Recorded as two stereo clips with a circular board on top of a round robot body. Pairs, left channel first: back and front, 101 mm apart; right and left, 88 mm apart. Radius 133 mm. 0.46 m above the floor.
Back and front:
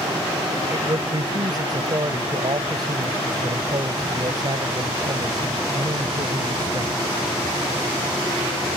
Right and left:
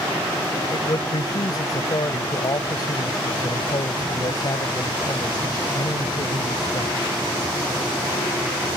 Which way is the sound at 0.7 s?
45° right.